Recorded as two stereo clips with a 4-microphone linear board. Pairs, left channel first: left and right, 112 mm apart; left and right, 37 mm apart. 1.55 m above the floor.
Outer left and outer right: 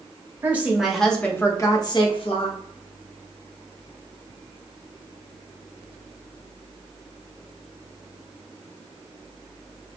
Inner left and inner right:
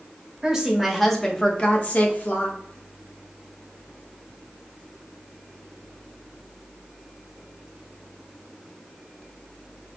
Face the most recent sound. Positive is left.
turn(degrees=60)  # may be behind; listen again after turning